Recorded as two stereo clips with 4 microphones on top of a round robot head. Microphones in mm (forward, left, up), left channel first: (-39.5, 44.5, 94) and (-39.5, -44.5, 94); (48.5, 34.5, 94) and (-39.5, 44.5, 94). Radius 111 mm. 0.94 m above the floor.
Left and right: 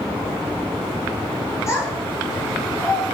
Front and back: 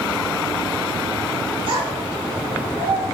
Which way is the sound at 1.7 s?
150° left.